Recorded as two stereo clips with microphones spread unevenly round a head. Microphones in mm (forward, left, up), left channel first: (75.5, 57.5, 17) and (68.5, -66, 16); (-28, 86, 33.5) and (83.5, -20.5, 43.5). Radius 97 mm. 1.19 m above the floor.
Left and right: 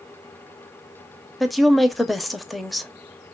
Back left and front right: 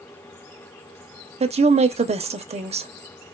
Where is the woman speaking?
5° right, 0.6 m.